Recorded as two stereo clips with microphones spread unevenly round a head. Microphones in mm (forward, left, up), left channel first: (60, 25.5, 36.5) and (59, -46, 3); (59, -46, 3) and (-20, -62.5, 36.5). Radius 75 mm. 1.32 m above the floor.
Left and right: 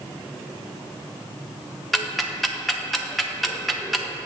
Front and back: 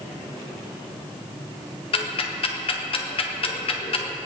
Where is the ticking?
Straight ahead, 1.2 m.